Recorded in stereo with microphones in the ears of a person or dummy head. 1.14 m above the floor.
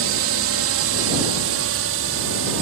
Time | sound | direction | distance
0.0 | a drone | 60° right (ahead or behind) | ?